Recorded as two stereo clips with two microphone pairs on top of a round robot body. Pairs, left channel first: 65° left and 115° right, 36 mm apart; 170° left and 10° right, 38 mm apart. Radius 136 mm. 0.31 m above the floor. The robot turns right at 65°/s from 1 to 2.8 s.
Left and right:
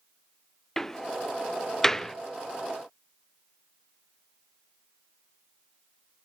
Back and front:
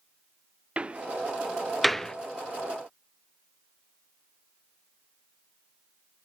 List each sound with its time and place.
0.8 s a door slam: 35° left, 0.8 m; by 2.1 s 110° left, 0.8 m